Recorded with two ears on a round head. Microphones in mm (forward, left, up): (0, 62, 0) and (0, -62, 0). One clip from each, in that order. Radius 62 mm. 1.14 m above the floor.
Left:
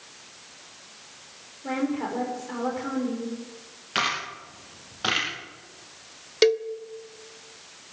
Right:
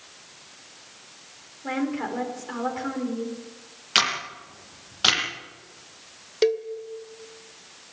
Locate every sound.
1.6 s a woman speaking: 40° right (ahead or behind), 4.5 m
4.0 s a camera shutter: 75° right (ahead or behind), 6 m
6.4 s a cowbell: 30° left (ahead or behind), 0.7 m